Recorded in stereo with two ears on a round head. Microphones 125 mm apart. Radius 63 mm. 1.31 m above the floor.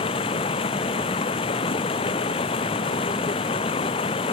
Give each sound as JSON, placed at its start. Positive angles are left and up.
{"t": 0.0, "sound": "running water", "side_deg": 40}